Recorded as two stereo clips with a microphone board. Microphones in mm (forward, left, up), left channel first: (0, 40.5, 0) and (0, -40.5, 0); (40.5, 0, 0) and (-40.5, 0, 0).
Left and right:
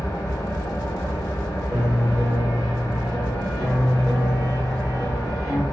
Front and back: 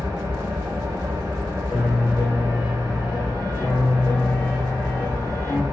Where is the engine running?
135° left, 0.8 m.